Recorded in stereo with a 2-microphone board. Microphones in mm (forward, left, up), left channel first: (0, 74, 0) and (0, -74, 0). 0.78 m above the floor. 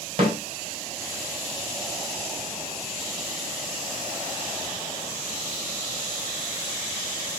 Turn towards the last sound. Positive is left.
turn(degrees=-40)  # may be behind; listen again after turning